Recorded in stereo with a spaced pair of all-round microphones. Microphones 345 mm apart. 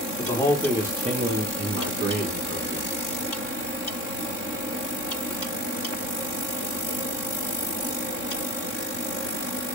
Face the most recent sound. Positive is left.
turn(degrees=-50)  # may be behind; listen again after turning